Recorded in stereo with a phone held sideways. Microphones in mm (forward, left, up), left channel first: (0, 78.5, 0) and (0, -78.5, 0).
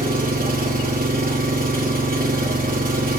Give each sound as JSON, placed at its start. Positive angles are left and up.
{"t": 0.0, "sound": "an engine running", "side_deg": -65, "distance_m": 1.3}